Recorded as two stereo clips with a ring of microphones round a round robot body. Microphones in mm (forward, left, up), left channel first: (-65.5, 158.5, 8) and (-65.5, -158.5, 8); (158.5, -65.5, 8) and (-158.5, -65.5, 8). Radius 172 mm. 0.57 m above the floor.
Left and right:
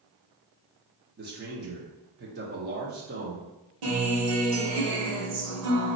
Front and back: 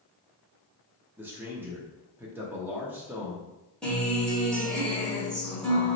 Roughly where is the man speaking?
Right.